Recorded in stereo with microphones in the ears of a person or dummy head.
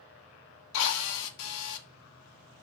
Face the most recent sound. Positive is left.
turn(degrees=75)  # may be behind; listen again after turning